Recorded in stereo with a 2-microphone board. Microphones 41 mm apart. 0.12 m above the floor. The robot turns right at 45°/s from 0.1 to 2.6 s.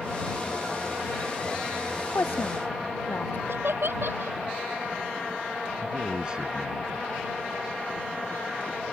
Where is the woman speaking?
75° left (ahead or behind); by 3.4 s 65° left (ahead or behind).